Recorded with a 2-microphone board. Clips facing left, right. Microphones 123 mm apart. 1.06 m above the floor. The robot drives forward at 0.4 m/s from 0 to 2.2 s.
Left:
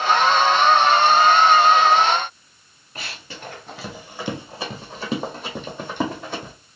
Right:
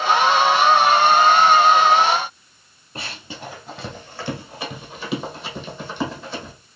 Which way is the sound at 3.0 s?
30° right (ahead or behind).